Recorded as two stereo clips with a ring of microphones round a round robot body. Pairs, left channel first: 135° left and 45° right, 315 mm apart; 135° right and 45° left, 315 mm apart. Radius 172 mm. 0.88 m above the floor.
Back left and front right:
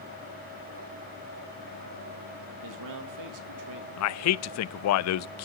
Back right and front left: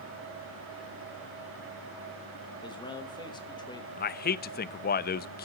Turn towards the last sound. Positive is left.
turn(degrees=165)